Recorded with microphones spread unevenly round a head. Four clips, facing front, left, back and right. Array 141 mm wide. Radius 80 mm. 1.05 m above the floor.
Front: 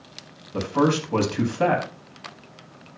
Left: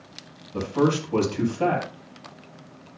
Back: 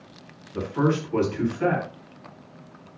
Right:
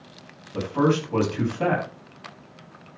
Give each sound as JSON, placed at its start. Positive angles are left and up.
{"t": 0.5, "sound": "a man speaking", "azimuth_deg": 5, "distance_m": 8.5}